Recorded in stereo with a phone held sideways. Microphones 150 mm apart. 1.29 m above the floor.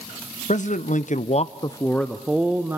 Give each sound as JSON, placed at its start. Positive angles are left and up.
{"t": 0.5, "sound": "a man speaking", "side_deg": 55, "distance_m": 1.0}